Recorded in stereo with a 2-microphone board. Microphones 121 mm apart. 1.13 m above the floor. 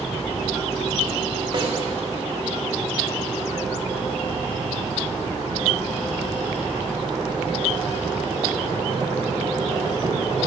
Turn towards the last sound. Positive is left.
turn(degrees=-50)  # may be behind; listen again after turning